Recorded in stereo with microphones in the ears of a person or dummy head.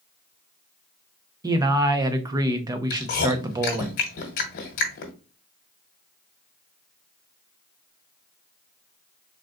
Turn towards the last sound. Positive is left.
turn(degrees=45)  # may be behind; listen again after turning